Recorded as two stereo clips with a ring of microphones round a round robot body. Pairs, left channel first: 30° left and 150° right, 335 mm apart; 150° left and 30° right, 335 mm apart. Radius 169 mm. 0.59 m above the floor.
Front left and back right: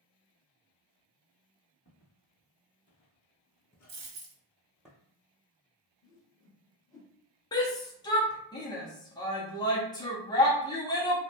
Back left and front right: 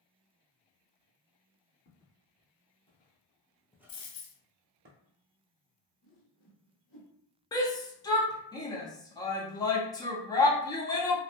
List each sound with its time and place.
1.9 s footsteps: 85° left, 1.3 m; by 4.9 s 60° right, 0.7 m
3.9 s a dropped coin: 175° right, 1.0 m
6.0 s a whoosh: 110° left, 1.1 m
7.5 s a shout: 90° left, 0.6 m